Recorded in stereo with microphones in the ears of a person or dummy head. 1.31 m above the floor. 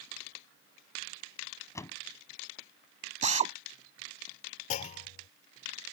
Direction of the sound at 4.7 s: 55° left (ahead or behind).